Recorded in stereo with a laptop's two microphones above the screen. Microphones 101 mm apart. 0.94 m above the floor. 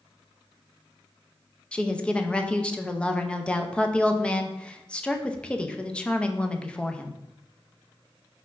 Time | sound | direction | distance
1.7 | a woman speaking | 10° left (ahead or behind) | 0.5 m